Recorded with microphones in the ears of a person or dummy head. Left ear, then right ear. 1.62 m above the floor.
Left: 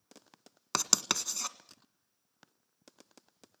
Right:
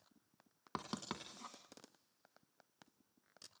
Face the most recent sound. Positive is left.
turn(degrees=65)  # may be behind; listen again after turning